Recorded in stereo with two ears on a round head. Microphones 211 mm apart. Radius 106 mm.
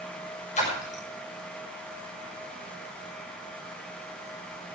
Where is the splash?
30° left (ahead or behind), 6.5 m.